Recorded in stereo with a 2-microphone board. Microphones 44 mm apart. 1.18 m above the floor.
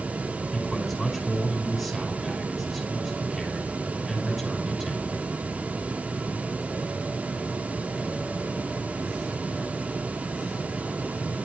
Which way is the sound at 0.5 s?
5° right (ahead or behind).